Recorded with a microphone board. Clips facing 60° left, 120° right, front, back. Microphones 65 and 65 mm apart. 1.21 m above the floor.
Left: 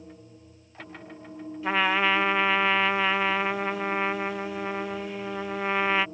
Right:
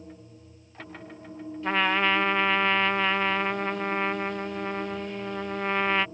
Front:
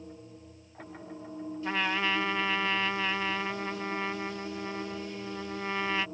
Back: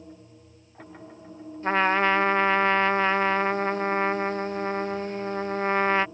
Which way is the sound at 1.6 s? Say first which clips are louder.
Left 1 dB, back 9 dB; 145° left.